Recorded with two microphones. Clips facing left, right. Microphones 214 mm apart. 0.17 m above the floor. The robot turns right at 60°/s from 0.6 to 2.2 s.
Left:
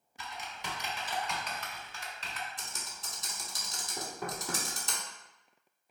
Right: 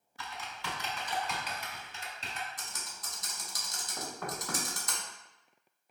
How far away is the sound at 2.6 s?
About 0.8 m.